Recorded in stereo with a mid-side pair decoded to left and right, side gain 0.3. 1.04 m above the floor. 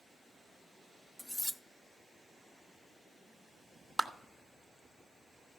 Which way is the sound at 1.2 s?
15° left.